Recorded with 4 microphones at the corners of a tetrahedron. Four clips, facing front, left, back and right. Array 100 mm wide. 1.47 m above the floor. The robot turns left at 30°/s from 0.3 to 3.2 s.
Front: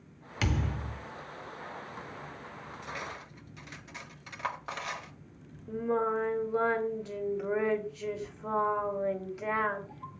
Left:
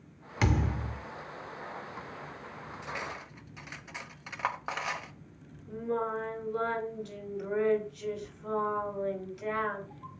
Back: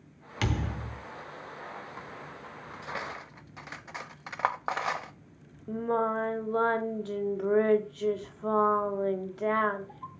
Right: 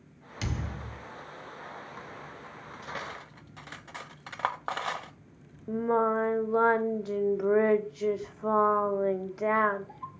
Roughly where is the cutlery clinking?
Behind right.